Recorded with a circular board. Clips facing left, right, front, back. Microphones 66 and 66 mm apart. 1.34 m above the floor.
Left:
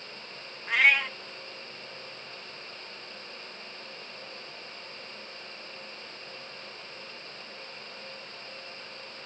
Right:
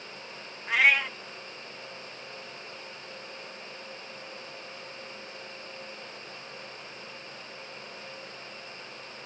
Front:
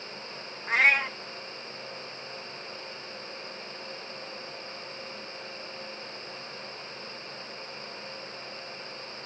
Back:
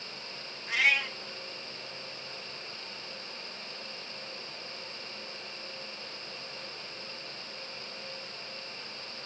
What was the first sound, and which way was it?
A cat meowing, 5° right.